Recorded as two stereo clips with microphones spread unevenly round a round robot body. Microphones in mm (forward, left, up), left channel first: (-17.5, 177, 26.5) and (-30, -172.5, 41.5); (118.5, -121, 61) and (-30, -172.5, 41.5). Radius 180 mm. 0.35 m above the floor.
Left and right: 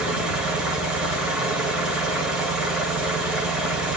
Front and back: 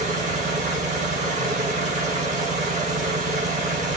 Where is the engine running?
Straight behind, 1.7 m.